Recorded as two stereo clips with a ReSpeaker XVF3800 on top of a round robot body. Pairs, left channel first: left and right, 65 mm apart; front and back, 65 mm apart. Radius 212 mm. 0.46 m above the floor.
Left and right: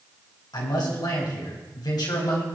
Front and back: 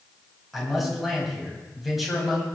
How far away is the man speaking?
About 4 m.